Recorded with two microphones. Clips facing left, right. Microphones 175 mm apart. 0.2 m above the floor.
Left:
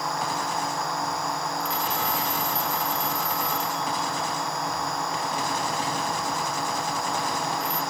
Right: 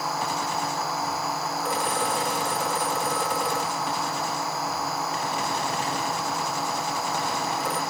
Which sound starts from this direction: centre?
A drone, at 0.0 s.